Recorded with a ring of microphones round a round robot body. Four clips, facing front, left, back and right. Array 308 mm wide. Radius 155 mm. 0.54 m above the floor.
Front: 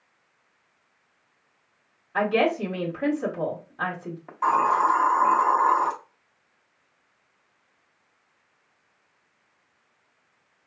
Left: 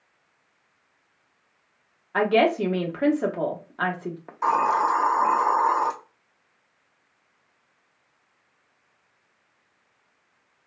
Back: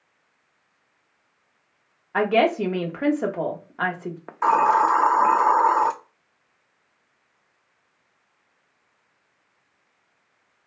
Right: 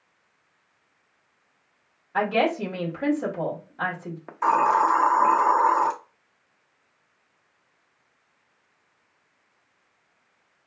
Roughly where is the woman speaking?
Behind left.